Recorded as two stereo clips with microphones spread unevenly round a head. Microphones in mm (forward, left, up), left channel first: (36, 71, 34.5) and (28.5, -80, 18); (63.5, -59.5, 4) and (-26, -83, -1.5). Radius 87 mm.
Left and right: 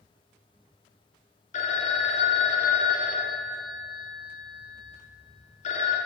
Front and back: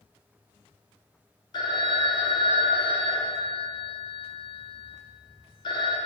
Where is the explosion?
I don't hear an explosion.